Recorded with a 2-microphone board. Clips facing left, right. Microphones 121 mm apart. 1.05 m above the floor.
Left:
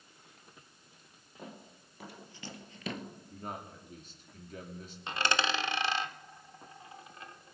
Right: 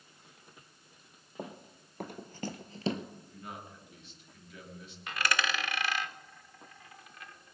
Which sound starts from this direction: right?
Running footsteps, at 1.4 s.